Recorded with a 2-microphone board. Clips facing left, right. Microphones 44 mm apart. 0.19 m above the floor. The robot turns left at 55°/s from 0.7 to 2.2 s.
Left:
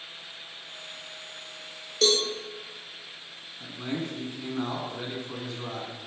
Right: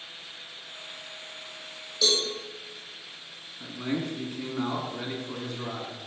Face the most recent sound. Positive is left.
turn(degrees=0)  # may be behind; listen again after turning